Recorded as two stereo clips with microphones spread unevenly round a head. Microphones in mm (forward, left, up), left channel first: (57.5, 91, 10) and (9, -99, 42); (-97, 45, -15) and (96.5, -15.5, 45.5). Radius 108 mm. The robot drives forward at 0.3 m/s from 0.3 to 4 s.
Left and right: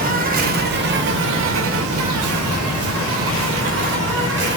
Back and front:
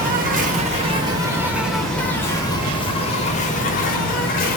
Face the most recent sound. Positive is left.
turn(degrees=-140)